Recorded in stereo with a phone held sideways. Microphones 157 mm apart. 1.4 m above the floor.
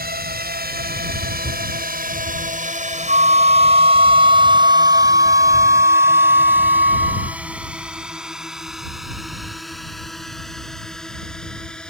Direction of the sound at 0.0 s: 80° right.